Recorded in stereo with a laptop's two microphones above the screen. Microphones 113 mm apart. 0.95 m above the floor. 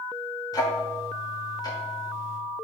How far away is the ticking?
About 1.9 m.